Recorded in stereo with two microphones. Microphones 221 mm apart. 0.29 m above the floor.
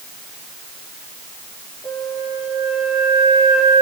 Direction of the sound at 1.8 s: 25° left (ahead or behind).